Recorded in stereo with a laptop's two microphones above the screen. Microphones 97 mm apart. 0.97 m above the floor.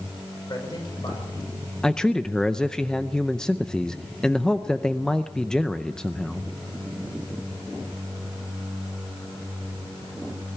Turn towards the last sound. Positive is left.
turn(degrees=10)  # may be behind; listen again after turning